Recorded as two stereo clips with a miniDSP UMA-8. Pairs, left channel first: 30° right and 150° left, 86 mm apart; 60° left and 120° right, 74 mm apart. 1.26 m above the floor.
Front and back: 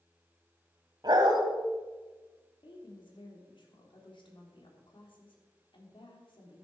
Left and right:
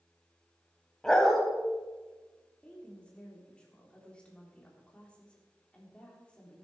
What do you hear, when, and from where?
1.0 s a dog barking: 140° left, 1.8 m
2.6 s a woman speaking: 15° right, 3 m